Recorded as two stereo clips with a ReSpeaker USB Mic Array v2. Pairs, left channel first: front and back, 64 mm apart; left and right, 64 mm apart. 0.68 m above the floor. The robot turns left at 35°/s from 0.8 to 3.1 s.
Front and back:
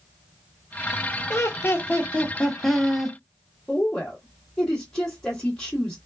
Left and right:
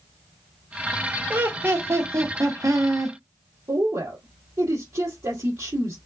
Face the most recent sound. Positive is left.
turn(degrees=-80)